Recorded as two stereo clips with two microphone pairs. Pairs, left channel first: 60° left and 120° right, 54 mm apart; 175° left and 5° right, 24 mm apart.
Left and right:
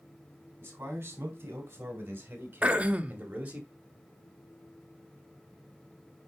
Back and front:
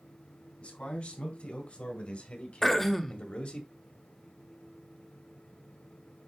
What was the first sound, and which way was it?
A man speaking, 165° right.